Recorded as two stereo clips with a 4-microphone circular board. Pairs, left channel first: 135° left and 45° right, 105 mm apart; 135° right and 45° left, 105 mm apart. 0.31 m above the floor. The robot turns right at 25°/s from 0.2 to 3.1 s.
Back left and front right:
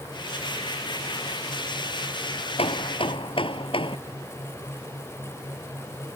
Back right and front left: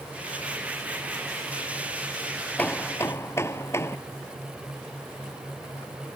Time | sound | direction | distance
2.6 | hammering | 150° left | ?